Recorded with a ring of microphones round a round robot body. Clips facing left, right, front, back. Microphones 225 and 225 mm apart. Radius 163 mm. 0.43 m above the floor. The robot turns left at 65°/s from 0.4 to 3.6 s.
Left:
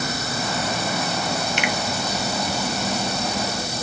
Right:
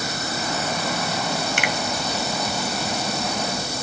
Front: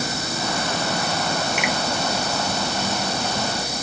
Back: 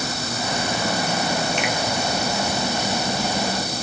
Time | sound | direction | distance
1.6 | a finger snap | 80° right | 0.7 m